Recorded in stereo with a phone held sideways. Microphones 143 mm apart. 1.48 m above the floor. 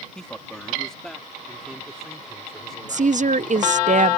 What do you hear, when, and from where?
0.1 s a man speaking: 5° left (ahead or behind); by 3.9 s centre (ahead or behind)
2.9 s a woman speaking: 60° right (ahead or behind)